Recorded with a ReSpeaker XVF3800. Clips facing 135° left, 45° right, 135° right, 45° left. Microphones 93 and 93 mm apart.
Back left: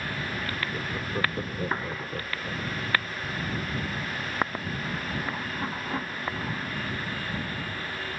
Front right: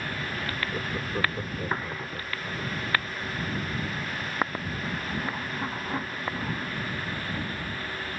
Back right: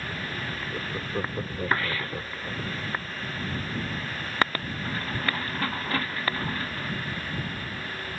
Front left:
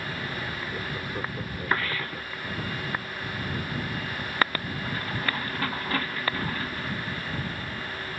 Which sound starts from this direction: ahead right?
Laughter, at 0.7 s.